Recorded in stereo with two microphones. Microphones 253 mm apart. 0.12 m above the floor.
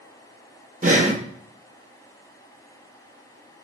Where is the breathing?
30° right (ahead or behind), 0.5 m.